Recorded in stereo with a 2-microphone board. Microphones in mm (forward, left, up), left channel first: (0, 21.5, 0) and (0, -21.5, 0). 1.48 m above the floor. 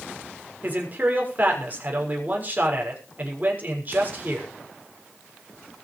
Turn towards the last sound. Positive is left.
turn(degrees=-40)  # may be behind; listen again after turning